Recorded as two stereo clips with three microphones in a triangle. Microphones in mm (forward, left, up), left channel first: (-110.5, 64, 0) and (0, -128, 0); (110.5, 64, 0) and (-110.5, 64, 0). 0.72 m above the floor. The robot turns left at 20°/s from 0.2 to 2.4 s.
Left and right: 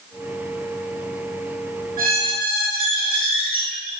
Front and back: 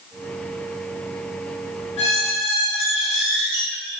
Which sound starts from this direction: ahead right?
A squeak, at 2.0 s.